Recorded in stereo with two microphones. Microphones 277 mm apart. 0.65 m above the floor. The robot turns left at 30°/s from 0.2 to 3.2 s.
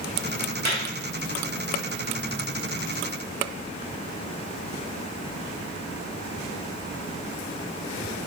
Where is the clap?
65° left (ahead or behind), 3.5 m; by 0.8 s 70° left (ahead or behind), 3.5 m.